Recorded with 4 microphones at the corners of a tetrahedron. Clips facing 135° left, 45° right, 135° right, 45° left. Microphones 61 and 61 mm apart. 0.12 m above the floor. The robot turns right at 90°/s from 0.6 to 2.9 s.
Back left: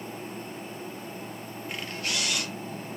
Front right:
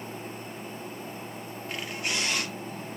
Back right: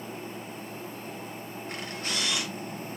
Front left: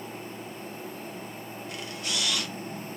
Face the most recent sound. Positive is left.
turn(degrees=-30)